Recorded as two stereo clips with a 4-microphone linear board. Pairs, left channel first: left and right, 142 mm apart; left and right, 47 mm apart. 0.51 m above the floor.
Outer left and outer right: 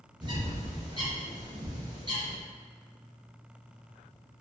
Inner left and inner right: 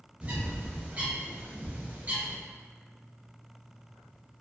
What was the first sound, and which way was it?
A bird, 30° right (ahead or behind).